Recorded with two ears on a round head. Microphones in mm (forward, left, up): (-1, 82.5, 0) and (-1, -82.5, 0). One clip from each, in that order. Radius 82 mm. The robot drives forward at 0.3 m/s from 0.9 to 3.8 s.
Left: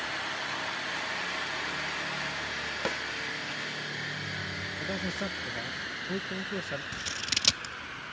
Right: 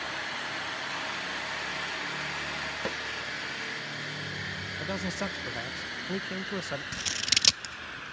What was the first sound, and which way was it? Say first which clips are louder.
A snare drum: left 4 dB; 20° left (ahead or behind).